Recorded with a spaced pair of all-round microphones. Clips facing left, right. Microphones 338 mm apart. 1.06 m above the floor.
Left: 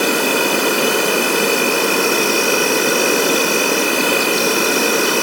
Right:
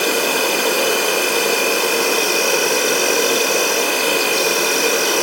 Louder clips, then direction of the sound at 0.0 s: Left 2 dB; 65° left (ahead or behind).